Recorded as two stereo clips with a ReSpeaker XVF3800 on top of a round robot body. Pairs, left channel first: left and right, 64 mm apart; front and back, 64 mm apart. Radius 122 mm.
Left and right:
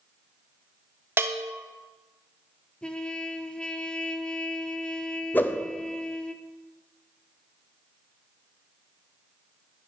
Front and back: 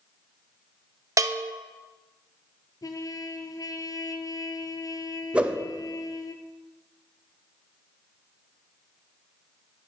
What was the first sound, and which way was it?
A bell, 145° right.